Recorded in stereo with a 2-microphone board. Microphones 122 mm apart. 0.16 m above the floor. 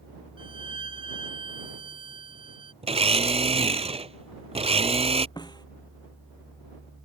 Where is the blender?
55° right (ahead or behind).